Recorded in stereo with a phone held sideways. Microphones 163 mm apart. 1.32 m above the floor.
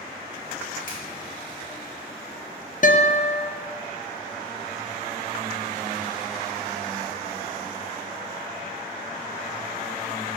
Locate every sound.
0.9 s a finger snap: 55° left (ahead or behind), 2.5 m
2.8 s a guitar: 55° left (ahead or behind), 0.5 m